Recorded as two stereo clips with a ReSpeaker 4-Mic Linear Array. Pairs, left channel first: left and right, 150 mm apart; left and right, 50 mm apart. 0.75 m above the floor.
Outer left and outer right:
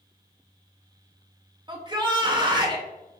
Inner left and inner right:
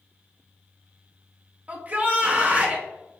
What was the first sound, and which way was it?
A shout, 30° right (ahead or behind).